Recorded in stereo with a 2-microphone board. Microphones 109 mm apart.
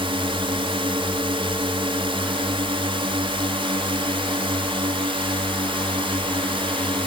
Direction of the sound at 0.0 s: 55° right (ahead or behind).